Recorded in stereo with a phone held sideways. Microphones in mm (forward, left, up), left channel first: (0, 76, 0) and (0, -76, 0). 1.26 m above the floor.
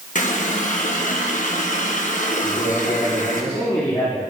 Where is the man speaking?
25° left (ahead or behind), 2 m.